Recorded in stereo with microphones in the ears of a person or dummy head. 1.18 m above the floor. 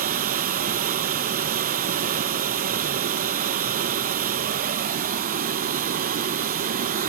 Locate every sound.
0.0 s running water: 45° right (ahead or behind), 1.0 m